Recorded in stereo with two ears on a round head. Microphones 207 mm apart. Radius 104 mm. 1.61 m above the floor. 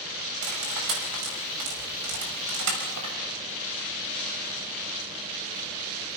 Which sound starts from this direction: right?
Cutlery clinking, at 0.4 s.